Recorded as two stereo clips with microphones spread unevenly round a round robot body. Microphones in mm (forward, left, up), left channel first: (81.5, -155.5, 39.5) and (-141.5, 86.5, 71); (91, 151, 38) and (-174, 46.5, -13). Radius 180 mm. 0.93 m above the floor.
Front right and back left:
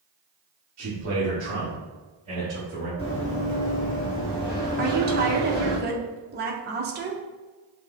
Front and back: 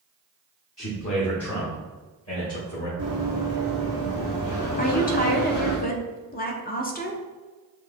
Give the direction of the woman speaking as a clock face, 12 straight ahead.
9 o'clock.